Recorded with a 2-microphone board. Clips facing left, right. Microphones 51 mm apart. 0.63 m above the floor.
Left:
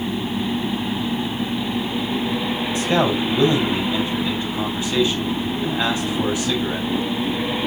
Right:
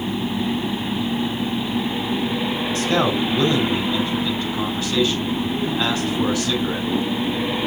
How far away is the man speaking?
About 5.5 m.